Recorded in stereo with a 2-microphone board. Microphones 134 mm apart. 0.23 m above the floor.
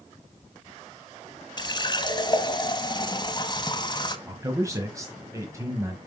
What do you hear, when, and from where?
1.6 s a running tap: 35° left (ahead or behind), 0.9 m
4.3 s a man speaking: 25° right (ahead or behind), 1.2 m